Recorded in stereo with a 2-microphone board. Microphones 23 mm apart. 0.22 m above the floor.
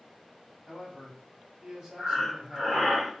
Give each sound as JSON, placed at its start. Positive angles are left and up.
{"t": 0.7, "sound": "a man speaking", "side_deg": -25, "distance_m": 1.1}
{"t": 2.0, "sound": "breathing", "side_deg": 5, "distance_m": 1.0}